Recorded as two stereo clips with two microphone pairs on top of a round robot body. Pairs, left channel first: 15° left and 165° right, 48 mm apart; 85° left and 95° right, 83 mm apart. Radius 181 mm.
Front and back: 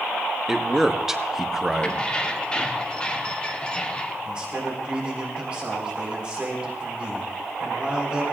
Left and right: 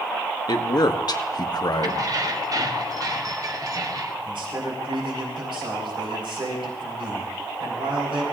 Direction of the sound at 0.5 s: 120° left.